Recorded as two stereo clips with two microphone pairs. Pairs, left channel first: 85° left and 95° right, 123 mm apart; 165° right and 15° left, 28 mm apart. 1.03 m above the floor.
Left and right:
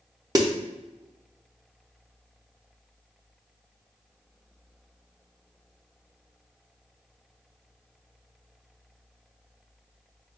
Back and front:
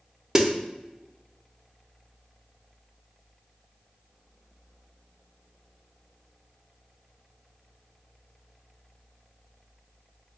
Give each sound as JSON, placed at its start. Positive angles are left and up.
{"t": 0.3, "sound": "a snare drum", "azimuth_deg": -50, "distance_m": 0.5}